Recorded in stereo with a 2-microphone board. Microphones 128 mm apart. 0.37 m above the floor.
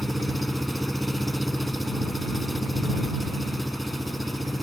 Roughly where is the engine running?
Centre.